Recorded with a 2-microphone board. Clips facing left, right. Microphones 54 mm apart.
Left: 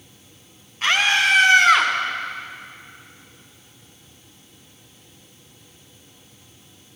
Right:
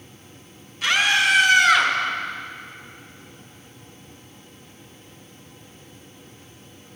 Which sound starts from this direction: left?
A scream, at 0.8 s.